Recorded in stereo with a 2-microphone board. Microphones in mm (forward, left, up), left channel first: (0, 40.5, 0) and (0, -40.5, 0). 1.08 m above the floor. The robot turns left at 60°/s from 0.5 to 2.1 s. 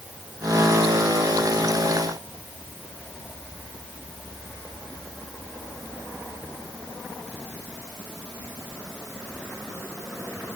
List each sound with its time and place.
Only background noise.